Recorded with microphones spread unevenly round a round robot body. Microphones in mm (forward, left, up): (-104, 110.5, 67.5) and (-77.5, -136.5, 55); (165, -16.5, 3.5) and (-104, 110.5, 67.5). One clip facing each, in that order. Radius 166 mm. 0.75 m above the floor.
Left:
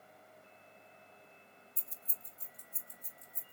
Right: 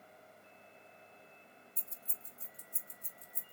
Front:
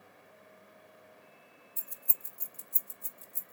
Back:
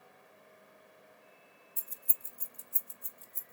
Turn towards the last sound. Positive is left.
turn(degrees=-35)